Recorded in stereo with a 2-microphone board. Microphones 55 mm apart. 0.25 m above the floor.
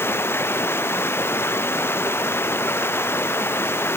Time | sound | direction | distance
0.0 | running water | 45° left (ahead or behind) | ?